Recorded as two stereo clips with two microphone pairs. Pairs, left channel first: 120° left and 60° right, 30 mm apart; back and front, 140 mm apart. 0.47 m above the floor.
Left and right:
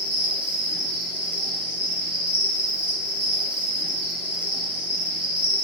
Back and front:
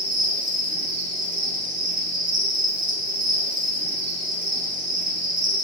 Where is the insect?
20° right, 0.7 m.